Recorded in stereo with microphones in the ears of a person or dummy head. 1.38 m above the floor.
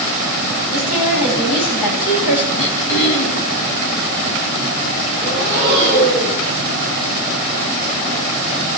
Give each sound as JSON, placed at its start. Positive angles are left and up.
{"t": 0.7, "sound": "a woman speaking", "side_deg": 80, "distance_m": 10.0}
{"t": 2.6, "sound": "throat clearing", "side_deg": 70, "distance_m": 2.5}
{"t": 5.2, "sound": "breathing", "side_deg": 60, "distance_m": 7.5}